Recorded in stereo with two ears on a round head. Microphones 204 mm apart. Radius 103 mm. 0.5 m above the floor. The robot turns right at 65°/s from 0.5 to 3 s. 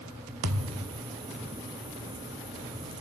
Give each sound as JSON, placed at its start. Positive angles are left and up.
{"t": 0.4, "sound": "a thud", "azimuth_deg": -65, "distance_m": 0.8}